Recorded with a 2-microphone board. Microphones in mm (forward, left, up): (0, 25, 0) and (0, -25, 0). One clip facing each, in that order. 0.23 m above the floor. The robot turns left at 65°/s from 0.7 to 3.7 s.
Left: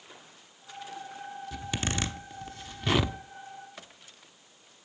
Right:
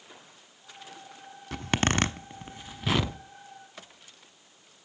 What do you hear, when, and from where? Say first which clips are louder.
1.5 s a zipper: right 8 dB; 60° right (ahead or behind), 0.8 m; by 3.2 s 15° left (ahead or behind), 0.8 m